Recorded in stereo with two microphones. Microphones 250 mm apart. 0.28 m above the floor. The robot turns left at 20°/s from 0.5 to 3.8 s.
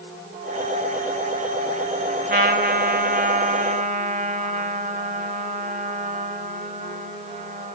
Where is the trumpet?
90° right, 1.0 m; by 7.7 s 120° right, 1.0 m.